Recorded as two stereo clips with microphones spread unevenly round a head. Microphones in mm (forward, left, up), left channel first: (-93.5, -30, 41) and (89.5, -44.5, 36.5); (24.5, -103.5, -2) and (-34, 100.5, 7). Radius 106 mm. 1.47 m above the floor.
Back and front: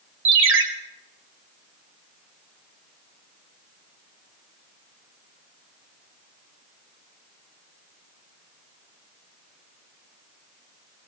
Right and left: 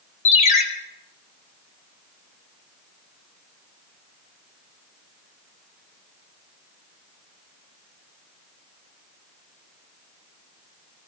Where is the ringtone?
15° right, 1.7 m.